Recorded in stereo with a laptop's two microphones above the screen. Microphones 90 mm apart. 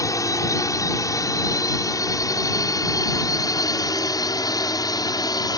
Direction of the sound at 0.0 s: 35° left (ahead or behind).